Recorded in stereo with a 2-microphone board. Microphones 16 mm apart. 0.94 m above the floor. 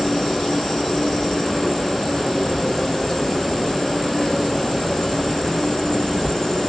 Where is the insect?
60° left (ahead or behind), 1.8 m.